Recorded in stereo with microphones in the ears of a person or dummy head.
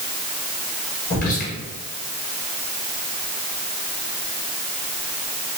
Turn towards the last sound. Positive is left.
turn(degrees=45)  # may be behind; listen again after turning